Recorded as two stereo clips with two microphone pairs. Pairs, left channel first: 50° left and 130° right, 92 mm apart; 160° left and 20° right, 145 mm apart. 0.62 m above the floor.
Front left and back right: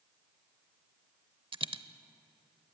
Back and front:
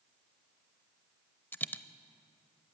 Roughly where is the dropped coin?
Behind right.